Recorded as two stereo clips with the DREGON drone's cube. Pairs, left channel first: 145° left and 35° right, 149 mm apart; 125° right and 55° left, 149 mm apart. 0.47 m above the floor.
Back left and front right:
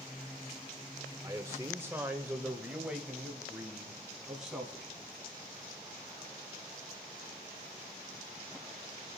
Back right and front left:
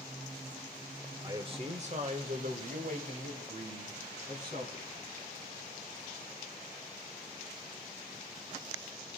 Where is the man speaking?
15° left, 0.9 m; by 5.0 s 50° left, 3 m.